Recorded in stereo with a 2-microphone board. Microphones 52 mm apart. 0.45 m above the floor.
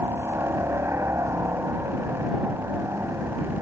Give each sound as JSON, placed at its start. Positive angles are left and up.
{"t": 0.0, "sound": "a helicopter", "side_deg": -55}